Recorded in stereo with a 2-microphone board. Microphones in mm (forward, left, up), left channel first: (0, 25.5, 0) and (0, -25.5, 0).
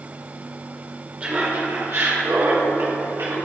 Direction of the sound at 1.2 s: 25° right (ahead or behind).